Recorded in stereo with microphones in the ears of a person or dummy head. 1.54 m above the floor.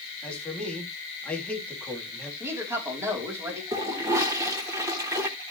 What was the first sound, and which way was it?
A man speaking, 5° left (ahead or behind).